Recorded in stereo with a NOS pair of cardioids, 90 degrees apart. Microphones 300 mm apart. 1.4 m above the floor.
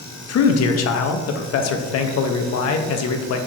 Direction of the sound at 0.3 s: 55° left.